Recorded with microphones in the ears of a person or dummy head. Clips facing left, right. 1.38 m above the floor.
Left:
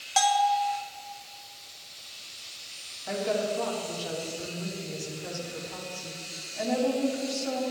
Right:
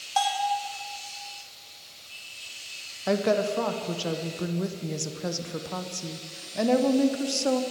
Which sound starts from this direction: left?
A bell, at 0.2 s.